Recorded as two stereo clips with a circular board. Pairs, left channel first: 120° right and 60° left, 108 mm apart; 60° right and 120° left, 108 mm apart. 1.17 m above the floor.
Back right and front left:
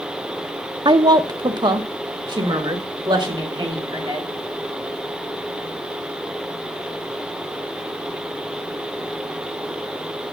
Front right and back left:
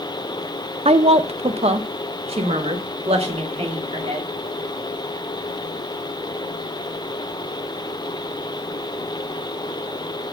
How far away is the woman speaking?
About 0.5 m.